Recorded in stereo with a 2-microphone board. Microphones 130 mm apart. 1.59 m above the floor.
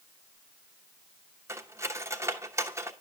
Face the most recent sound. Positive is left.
turn(degrees=-20)  # may be behind; listen again after turning